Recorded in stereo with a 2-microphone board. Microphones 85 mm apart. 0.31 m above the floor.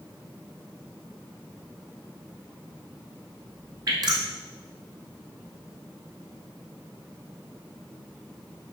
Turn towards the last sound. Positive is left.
turn(degrees=-55)  # may be behind; listen again after turning